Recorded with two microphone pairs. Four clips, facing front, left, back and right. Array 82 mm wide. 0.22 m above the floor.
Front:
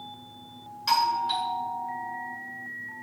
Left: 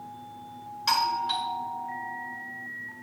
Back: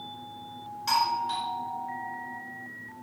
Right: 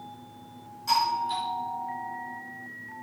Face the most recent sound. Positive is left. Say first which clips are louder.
# right 1 dB, front 2 dB
turn(degrees=85)